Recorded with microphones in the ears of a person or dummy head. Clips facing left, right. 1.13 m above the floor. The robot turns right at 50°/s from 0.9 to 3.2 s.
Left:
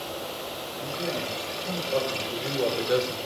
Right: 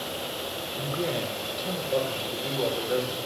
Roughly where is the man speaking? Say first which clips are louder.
Right 2 dB; ahead right.